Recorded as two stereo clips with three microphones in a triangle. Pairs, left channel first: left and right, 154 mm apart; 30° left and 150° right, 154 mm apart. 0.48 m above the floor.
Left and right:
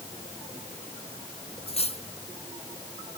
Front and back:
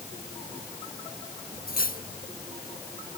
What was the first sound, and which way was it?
Cutlery clinking, 45° left.